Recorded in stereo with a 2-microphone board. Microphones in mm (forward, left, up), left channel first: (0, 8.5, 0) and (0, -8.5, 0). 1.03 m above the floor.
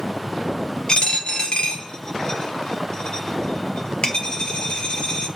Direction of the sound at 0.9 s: 70° left (ahead or behind).